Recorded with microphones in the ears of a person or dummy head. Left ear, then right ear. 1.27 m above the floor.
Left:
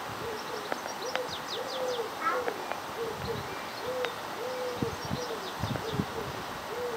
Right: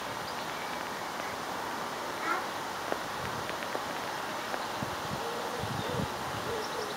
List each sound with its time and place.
2.2 s a child speaking: 20° left (ahead or behind), 0.8 m